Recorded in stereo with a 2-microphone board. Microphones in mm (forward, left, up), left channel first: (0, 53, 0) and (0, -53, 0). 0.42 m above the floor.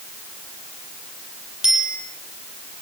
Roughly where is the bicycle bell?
Centre.